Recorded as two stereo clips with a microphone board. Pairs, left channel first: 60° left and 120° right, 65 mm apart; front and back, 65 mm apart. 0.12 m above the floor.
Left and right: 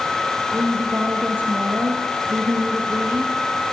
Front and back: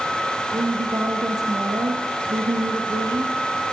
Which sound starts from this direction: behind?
A woman speaking, at 0.5 s.